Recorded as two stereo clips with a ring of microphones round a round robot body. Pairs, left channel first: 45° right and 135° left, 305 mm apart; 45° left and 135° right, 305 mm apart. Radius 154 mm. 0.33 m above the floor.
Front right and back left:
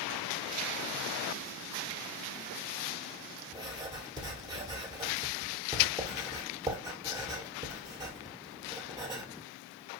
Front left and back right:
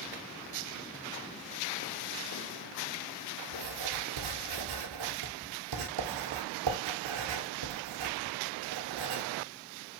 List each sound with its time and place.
3.5 s writing: 145° right, 1.3 m